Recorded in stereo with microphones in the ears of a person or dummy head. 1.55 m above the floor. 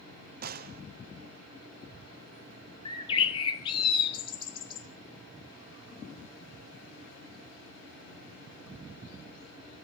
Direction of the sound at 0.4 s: 50° right (ahead or behind).